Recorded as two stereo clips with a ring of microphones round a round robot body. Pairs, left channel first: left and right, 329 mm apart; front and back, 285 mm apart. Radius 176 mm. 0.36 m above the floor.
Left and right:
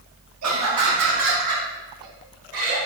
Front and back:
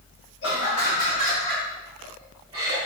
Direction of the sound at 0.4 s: 45° right.